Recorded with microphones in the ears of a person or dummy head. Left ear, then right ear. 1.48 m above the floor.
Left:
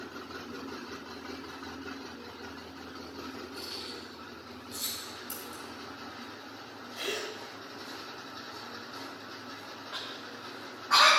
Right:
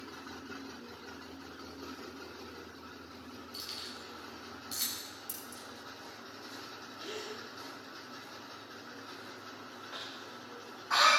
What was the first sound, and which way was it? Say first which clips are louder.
Keys jangling: even; 60° right (ahead or behind).